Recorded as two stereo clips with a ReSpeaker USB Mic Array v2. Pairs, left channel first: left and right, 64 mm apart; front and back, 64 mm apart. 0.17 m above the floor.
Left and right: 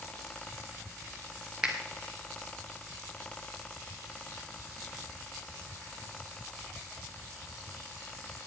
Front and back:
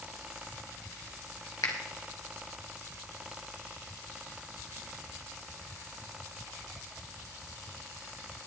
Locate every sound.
1.6 s a finger snap: 15° right, 2.5 m